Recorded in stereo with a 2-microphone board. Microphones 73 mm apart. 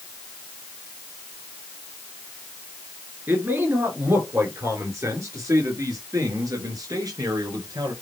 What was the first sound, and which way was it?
A man speaking, 30° right (ahead or behind).